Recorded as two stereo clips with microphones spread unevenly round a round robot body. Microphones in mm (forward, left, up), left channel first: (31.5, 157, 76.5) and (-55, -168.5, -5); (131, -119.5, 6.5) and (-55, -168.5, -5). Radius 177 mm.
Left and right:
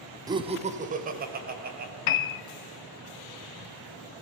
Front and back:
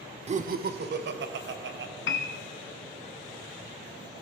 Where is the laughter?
155° right, 0.9 m; by 1.9 s 165° right, 2.5 m.